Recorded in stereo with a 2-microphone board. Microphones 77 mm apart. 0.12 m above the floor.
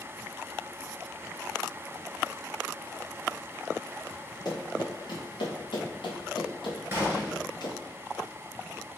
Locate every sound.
4.5 s running footsteps: 60° left (ahead or behind), 1.8 m; by 7.9 s 55° left (ahead or behind), 1.7 m
6.9 s a gunshot: 30° right (ahead or behind), 1.0 m